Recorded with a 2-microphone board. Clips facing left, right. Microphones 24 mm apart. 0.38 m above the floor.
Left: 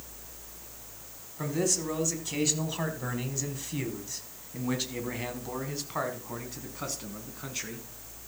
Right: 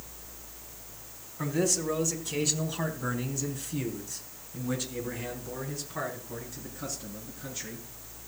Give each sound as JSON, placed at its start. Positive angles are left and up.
{"t": 1.4, "sound": "a man speaking", "side_deg": 0, "distance_m": 4.0}